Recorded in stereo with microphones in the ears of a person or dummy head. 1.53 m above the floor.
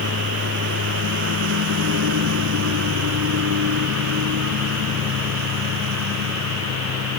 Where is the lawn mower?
60° right (ahead or behind); by 7.2 s 85° right.